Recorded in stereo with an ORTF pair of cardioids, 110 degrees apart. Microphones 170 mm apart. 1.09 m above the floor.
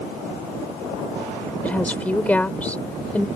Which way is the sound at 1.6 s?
10° left.